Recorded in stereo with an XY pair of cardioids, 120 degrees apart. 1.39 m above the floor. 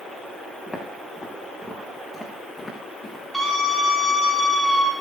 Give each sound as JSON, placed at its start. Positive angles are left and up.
{"t": 0.7, "sound": "footsteps", "azimuth_deg": 5, "distance_m": 8.0}
{"t": 3.3, "sound": "a scream", "azimuth_deg": -10, "distance_m": 4.0}